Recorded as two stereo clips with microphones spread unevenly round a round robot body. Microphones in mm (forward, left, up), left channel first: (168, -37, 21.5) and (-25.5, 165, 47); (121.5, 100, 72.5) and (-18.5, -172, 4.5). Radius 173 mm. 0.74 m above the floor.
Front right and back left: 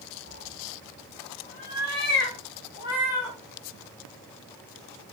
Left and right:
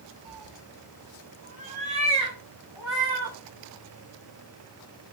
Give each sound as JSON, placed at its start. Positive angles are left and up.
{"t": 0.2, "sound": "a cat meowing", "azimuth_deg": -120, "distance_m": 0.5}